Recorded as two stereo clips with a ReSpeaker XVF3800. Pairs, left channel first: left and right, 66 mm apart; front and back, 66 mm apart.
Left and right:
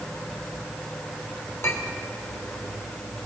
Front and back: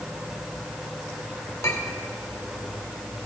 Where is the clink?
45° left, 2.0 m.